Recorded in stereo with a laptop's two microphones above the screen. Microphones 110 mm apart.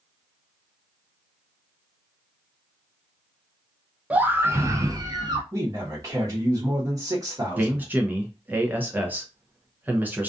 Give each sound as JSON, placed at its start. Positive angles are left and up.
{"t": 4.1, "sound": "a scream", "side_deg": -15, "distance_m": 0.7}
{"t": 5.5, "sound": "a man speaking", "side_deg": -30, "distance_m": 1.0}
{"t": 7.6, "sound": "a man speaking", "side_deg": -15, "distance_m": 0.5}